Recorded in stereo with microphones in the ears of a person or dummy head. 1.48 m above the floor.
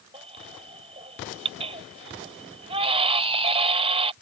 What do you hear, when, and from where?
0.1 s a baby crying: 35° right (ahead or behind)